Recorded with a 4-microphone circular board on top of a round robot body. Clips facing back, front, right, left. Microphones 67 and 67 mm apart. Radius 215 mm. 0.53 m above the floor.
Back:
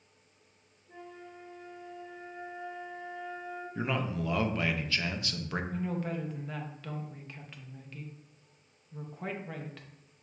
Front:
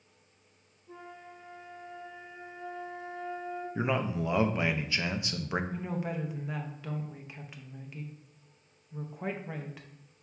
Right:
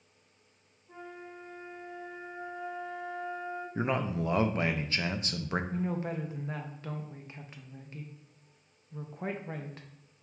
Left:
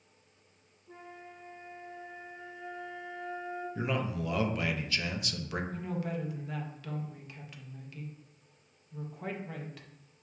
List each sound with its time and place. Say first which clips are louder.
0.9 s a flute: even, right 3 dB; 5° left, 1.0 m
3.8 s a man speaking: front 2 dB, right 3 dB; 60° right, 0.7 m
5.7 s a woman speaking: even, right 3 dB; 70° right, 0.9 m